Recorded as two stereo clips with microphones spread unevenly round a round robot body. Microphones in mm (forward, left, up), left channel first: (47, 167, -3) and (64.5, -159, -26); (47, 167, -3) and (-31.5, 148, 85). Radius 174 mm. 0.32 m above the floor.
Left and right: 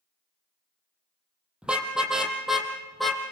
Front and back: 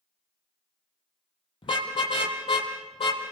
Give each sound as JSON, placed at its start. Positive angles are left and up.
{"t": 1.6, "sound": "a car horn", "azimuth_deg": 0, "distance_m": 4.0}